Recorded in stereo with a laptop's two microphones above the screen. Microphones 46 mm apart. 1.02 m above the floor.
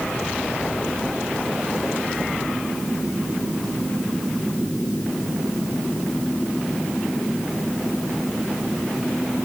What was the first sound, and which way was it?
Only background noise.